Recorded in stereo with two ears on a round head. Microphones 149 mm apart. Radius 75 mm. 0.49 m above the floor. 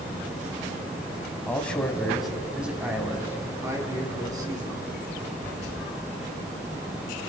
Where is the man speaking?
10° left (ahead or behind), 3 m; by 4.8 s 25° right (ahead or behind), 4.5 m.